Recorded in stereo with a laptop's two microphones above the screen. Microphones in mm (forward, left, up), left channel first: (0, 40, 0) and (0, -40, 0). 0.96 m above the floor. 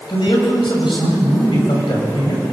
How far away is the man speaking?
About 6 m.